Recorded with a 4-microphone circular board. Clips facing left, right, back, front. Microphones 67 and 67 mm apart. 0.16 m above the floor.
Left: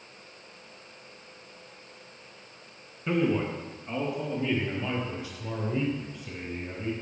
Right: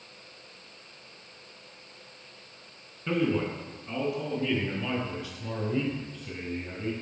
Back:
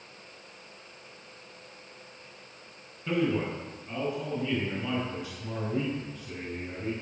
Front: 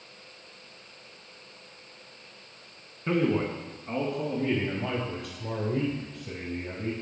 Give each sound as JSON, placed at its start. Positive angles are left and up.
{"t": 3.1, "sound": "a man speaking", "azimuth_deg": 10, "distance_m": 1.4}